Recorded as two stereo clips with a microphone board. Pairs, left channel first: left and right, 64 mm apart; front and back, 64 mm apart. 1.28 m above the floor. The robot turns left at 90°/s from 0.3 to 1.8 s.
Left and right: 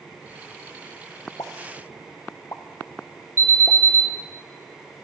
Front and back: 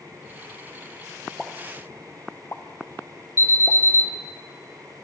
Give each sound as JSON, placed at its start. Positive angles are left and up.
{"t": 1.4, "sound": "a pop", "azimuth_deg": 90, "distance_m": 0.7}
{"t": 3.4, "sound": "an alarm", "azimuth_deg": 40, "distance_m": 4.0}